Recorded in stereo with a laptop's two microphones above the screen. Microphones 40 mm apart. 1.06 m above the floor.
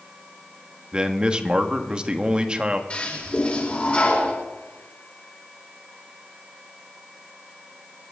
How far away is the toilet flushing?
About 4 m.